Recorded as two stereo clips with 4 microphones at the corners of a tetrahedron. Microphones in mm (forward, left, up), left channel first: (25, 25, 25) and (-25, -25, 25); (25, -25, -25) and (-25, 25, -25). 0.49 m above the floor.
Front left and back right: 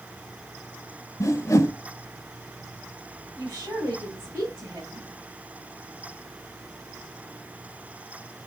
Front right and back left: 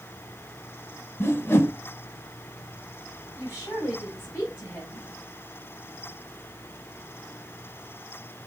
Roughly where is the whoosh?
Ahead.